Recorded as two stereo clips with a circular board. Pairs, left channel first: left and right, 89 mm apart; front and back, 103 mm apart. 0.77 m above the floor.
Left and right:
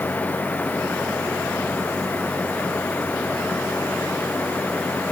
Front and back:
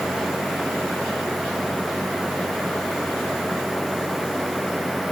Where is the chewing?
No chewing in this recording.